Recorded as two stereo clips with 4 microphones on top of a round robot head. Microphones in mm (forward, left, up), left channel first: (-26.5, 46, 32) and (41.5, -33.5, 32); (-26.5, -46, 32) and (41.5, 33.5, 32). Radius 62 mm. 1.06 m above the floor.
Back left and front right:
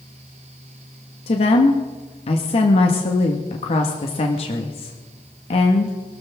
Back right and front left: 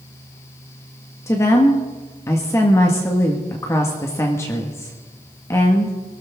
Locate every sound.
1.3 s a woman speaking: 165° left, 1.6 m